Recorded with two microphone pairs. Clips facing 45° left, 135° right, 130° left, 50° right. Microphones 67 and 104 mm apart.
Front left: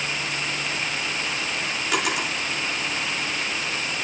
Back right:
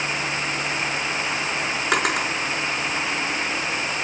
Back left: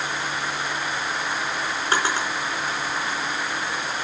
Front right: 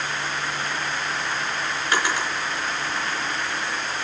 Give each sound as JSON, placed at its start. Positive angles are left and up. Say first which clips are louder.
{"t": 1.9, "sound": "a drawer", "louder": "back right 3 dB, back left 1 dB", "azimuth_deg": -175, "distance_m": 5.0}